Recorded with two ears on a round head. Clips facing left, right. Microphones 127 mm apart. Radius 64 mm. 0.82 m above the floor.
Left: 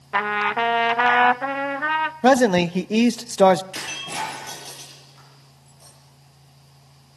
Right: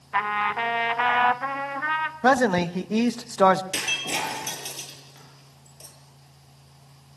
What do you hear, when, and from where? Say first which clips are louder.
0.1 s a trumpet: left 3 dB; 55° left (ahead or behind), 0.8 m
2.2 s a man speaking: left 4 dB; 25° left (ahead or behind), 0.7 m
3.7 s breaking glass: even; 80° right, 7.5 m